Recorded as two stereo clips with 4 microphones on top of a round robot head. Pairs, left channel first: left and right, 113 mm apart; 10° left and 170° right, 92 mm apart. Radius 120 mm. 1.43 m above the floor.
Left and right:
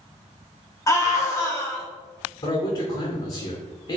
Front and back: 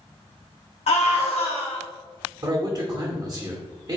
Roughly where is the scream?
Ahead left.